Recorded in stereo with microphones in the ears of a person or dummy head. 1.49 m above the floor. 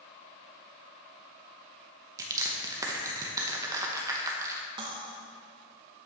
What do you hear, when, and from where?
2.2 s crushing: 20° right (ahead or behind), 0.9 m
4.8 s cutlery clinking: 30° right (ahead or behind), 0.8 m